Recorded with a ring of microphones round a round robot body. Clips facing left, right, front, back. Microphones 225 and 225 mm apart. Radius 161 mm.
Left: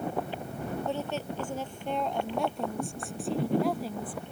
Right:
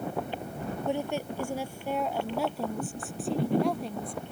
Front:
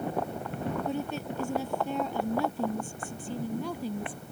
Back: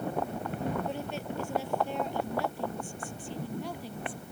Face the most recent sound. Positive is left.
turn(degrees=5)